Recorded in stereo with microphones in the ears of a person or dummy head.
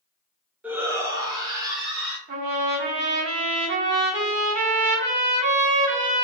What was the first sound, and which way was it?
A shout, 10° right (ahead or behind).